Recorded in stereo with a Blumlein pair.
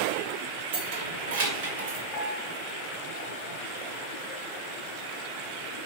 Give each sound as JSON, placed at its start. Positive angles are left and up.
{"t": 0.7, "sound": "keys jangling", "azimuth_deg": -45, "distance_m": 1.9}
{"t": 2.1, "sound": "a piano", "azimuth_deg": 20, "distance_m": 1.9}